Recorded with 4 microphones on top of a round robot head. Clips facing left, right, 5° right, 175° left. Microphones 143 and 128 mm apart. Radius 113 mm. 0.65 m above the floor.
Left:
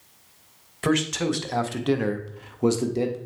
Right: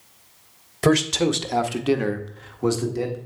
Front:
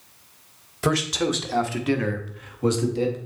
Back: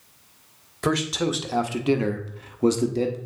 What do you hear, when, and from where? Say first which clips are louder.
0.8 s a man speaking: right 4 dB, front 1 dB; 85° right, 0.9 m; by 3.2 s 145° left, 1.1 m